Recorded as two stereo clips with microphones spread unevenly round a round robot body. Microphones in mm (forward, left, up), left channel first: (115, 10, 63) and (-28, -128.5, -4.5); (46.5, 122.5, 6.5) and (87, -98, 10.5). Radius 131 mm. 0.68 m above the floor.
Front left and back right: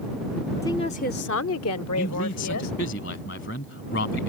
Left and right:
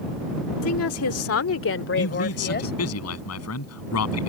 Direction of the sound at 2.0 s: 95° left.